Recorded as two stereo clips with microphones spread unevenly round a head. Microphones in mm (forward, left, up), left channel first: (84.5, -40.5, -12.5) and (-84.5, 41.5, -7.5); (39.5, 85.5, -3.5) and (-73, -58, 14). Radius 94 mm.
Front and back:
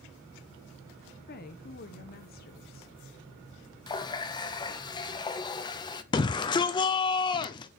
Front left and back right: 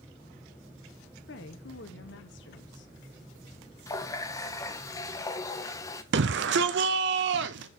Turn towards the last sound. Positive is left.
turn(degrees=-95)